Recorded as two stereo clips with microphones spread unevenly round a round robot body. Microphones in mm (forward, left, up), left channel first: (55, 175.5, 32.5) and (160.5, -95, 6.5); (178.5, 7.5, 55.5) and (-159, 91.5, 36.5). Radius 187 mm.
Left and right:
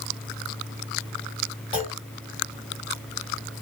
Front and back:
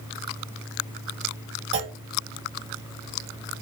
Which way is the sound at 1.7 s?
175° right.